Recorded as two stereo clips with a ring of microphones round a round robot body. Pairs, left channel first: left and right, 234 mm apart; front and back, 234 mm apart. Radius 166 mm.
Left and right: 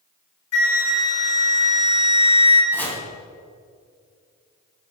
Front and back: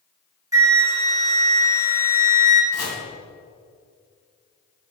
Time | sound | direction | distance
0.5 | a flute | 105° left | 2.5 m
2.7 | chopping | 10° left | 3.5 m